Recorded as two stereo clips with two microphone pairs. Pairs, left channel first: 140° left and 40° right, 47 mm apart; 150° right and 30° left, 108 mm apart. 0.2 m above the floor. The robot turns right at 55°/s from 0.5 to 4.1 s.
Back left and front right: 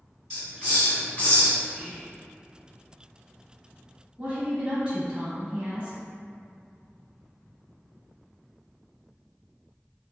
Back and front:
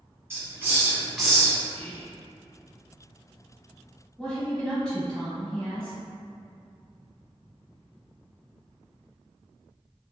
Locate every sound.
0.3 s a hiss: 80° left, 1.8 m; by 1.6 s 140° left, 1.8 m
1.7 s whispering: 145° right, 1.0 m; by 2.2 s 115° right, 1.0 m
4.2 s a woman speaking: 75° right, 1.0 m